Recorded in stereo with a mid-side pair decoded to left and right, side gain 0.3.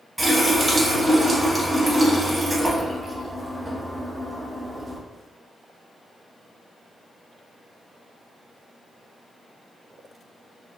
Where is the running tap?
25° right, 1.3 m.